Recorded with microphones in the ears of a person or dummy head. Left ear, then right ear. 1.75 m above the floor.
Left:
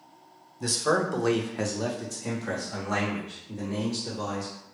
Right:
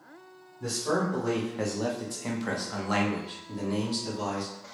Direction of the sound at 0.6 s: 60° left (ahead or behind).